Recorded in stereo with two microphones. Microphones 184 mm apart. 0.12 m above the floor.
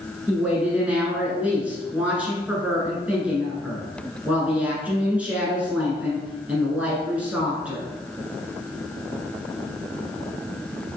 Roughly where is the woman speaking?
Centre.